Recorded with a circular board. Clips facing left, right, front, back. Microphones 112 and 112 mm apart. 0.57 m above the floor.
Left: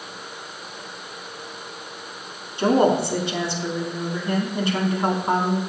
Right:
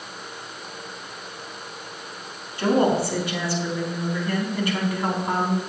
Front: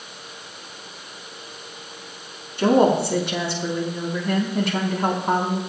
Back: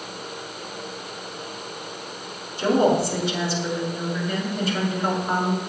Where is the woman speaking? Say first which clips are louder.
Left 2 dB, front 2 dB; 25° left, 4.5 m.